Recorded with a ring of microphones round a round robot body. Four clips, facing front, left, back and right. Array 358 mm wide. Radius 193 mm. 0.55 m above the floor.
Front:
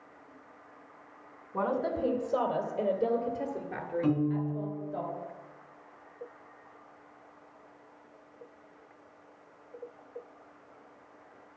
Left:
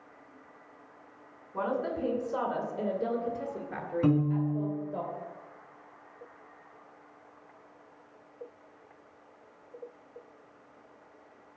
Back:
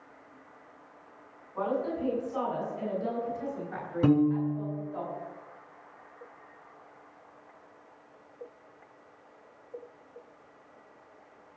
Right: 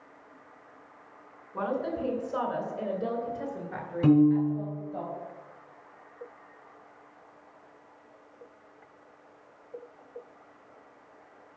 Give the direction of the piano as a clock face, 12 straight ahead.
6 o'clock.